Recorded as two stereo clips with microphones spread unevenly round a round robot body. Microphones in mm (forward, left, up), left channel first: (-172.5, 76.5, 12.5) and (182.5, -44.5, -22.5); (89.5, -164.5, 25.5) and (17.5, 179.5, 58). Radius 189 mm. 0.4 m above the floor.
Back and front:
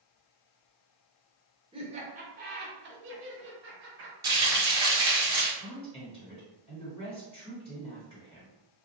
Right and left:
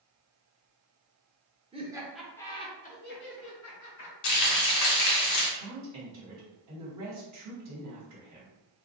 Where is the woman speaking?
85° left, 1.5 m.